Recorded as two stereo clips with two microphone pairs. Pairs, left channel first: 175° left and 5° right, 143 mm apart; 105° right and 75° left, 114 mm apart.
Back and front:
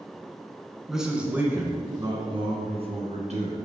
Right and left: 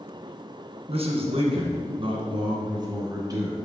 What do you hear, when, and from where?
0.9 s a man speaking: 85° left, 2.5 m; by 3.5 s 20° left, 3 m